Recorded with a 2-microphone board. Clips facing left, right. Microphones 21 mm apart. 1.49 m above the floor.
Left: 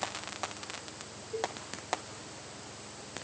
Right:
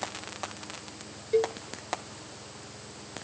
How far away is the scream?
I don't hear a scream.